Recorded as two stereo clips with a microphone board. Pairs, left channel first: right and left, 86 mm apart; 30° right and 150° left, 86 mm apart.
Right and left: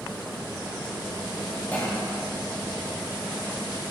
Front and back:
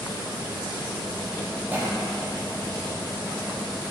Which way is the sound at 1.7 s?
155° right.